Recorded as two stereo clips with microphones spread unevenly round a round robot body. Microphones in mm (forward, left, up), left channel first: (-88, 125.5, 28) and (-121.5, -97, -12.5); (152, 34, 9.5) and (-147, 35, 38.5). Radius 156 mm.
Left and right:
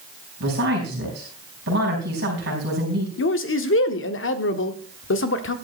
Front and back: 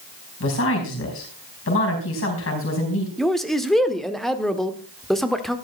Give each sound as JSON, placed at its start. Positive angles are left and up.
{"t": 0.4, "sound": "a woman speaking", "azimuth_deg": -50, "distance_m": 4.0}
{"t": 3.2, "sound": "a man speaking", "azimuth_deg": 85, "distance_m": 1.2}